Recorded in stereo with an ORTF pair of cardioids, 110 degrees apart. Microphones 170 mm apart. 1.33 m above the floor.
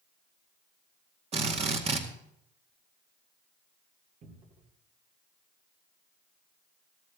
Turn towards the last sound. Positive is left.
turn(degrees=-50)